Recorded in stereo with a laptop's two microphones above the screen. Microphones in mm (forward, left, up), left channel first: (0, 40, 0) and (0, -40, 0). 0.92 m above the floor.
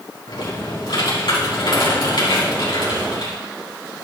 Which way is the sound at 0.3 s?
70° left (ahead or behind).